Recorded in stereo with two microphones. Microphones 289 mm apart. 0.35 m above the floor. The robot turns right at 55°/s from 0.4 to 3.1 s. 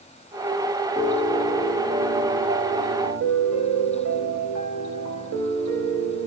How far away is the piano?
About 0.8 m.